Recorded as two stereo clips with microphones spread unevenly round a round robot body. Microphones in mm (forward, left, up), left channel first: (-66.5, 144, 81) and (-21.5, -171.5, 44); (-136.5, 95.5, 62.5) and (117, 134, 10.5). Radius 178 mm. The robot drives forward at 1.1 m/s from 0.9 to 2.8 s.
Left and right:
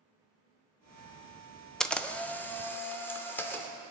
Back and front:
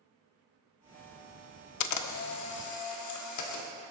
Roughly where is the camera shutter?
Behind.